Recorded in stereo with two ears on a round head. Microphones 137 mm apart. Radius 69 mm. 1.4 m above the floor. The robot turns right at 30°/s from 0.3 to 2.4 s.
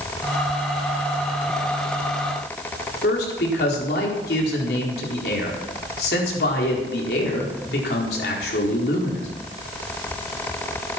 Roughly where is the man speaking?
Left.